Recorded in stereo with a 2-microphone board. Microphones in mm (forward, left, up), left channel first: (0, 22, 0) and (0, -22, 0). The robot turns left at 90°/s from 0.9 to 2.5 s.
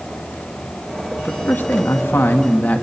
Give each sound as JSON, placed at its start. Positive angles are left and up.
{"t": 1.2, "sound": "a man speaking", "azimuth_deg": 165, "distance_m": 1.8}